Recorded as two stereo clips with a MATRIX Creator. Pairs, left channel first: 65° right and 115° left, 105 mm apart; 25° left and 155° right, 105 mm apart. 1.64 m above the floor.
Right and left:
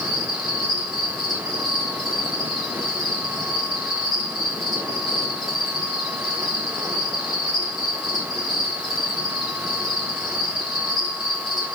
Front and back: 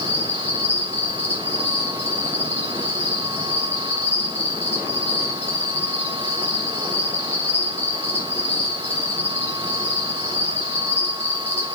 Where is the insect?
25° left, 4 m.